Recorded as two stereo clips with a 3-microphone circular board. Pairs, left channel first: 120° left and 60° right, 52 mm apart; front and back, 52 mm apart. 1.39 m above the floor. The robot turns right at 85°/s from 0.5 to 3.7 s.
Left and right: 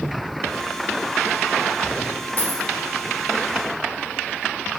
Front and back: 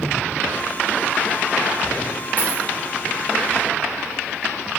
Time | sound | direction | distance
2.4 | a dropped coin | 145° left | 0.8 m